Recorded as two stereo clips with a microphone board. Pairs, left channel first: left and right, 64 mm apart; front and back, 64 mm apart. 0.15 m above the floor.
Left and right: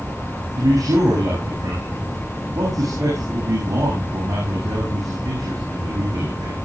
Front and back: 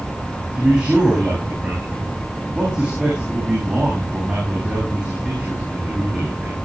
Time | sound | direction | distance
0.6 | a man speaking | 105° right | 8.5 m